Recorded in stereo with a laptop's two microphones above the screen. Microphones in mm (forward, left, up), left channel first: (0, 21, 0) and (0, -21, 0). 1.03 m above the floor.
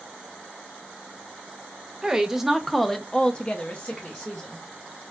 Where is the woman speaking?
10° right (ahead or behind), 0.9 m; by 4.6 s 40° left (ahead or behind), 1.0 m.